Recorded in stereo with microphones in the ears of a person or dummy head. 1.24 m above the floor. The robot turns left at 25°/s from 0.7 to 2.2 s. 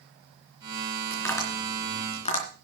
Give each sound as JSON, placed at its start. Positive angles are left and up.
{"t": 1.1, "sound": "tapping", "side_deg": 10, "distance_m": 3.5}